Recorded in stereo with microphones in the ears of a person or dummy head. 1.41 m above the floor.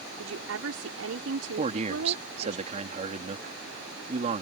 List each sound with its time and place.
0.2 s a woman speaking: 70° right (ahead or behind)
1.6 s a man speaking: 50° right (ahead or behind)